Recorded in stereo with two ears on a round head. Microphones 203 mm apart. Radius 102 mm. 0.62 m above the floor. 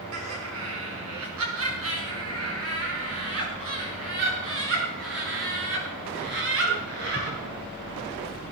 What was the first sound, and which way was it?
Laughter, 75° right (ahead or behind).